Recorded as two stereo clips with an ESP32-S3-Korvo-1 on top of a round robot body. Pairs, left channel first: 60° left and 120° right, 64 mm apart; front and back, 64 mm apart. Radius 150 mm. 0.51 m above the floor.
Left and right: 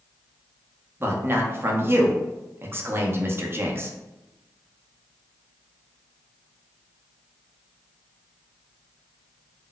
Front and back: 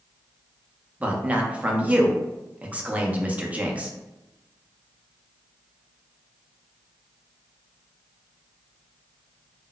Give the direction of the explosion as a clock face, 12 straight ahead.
No explosion in this recording.